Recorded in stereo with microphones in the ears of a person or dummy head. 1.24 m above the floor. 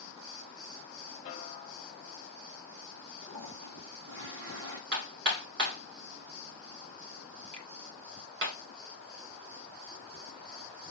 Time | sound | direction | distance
1.2 | a snare drum | 25° left (ahead or behind) | 0.9 m
3.2 | a toilet flushing | 60° right (ahead or behind) | 2.5 m
4.9 | hammering | 50° right (ahead or behind) | 1.4 m
7.5 | a finger snap | 30° right (ahead or behind) | 3 m